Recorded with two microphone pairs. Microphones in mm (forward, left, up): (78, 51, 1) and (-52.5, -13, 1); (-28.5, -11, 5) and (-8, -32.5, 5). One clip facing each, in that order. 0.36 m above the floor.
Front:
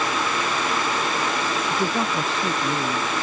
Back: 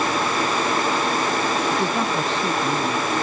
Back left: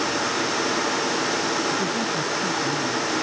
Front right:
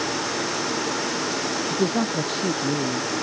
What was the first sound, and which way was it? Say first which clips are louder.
A man speaking: back 2 dB, front right 1 dB; 60° right.